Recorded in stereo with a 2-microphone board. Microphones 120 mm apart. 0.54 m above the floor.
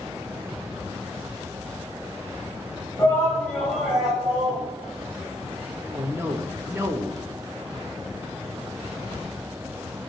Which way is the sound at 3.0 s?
25° left (ahead or behind).